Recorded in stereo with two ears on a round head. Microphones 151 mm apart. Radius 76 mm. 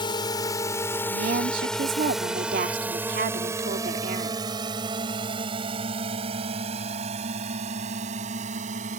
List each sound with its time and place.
0.0 s a drone: 30° left (ahead or behind); by 9.0 s 45° right (ahead or behind)
1.1 s a woman speaking: 55° right (ahead or behind)